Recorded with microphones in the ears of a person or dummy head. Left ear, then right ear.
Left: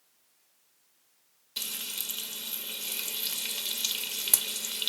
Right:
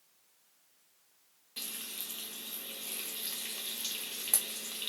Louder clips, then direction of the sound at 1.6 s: Left 7 dB; 20° left (ahead or behind).